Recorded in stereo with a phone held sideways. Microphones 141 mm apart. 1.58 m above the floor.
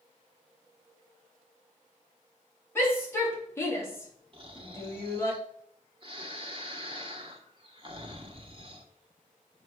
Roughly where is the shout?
Centre.